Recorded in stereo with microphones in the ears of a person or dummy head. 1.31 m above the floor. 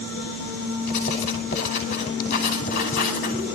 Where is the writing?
45° left (ahead or behind), 5 m.